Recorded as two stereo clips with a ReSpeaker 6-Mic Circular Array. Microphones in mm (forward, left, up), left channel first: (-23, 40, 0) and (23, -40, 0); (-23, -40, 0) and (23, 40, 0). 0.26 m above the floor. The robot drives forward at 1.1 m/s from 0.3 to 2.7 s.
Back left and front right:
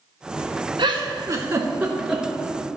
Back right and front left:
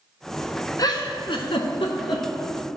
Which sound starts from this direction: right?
A giggle, at 0.8 s.